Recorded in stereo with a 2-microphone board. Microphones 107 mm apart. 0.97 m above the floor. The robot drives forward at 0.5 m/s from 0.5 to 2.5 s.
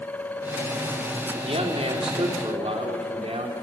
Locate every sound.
1.4 s a man speaking: 75° right (ahead or behind), 3.5 m; by 3.5 s 70° right (ahead or behind), 3.5 m